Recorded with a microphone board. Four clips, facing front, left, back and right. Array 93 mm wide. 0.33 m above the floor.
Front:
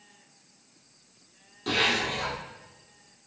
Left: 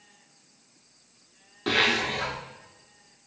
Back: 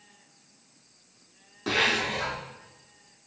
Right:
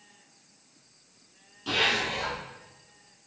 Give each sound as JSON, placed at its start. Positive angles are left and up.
{"t": 1.7, "sound": "a zipper", "azimuth_deg": 115, "distance_m": 0.9}